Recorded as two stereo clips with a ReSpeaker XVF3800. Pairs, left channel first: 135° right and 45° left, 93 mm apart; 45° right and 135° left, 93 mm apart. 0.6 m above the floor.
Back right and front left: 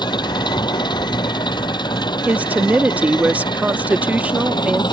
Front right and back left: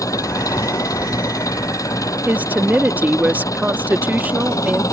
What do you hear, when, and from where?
0.0 s an engine running: 100° right
2.3 s a woman speaking: 90° left